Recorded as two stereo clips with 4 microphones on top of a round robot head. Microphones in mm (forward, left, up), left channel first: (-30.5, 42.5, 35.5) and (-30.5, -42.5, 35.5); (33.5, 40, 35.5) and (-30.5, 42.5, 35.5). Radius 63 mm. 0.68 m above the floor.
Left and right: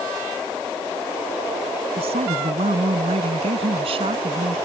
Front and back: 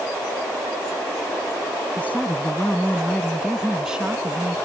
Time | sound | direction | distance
2.0 | a woman speaking | 75° right | ?